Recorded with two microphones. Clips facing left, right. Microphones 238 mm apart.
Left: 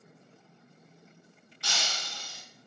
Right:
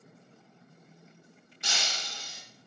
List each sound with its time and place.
1.6 s breaking glass: 20° right (ahead or behind), 0.7 m